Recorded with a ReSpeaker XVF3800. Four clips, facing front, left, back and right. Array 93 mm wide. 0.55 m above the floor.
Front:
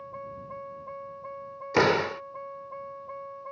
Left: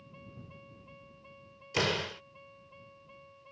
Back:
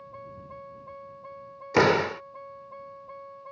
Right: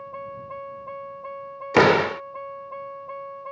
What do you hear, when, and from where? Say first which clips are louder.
0.0 s a vehicle: right 17 dB, front 4 dB; 70° right
1.7 s a door slam: right 15 dB, back 2 dB; 90° right